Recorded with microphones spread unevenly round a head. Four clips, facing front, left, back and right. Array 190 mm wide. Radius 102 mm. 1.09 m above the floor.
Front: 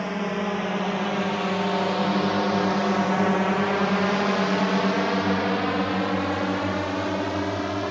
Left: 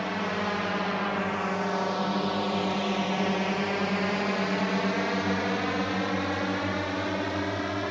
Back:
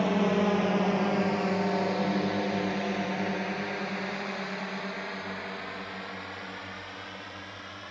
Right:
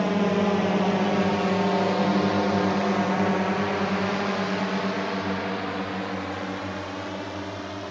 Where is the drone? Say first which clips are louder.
Right 7 dB, back 2 dB; 105° right; by 7.9 s 15° left.